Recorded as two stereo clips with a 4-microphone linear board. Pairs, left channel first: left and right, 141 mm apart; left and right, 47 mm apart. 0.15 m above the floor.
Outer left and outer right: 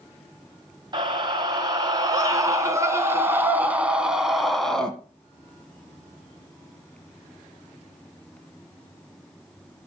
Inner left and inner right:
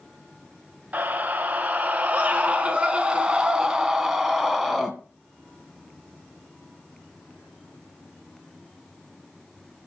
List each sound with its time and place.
0.9 s a scream: 35° right (ahead or behind), 2.5 m; by 4.9 s 5° left (ahead or behind), 1.6 m